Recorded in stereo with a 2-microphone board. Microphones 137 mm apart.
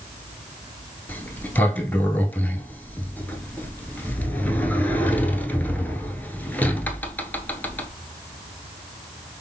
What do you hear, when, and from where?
1.1 s a sliding door: 15° left (ahead or behind), 0.6 m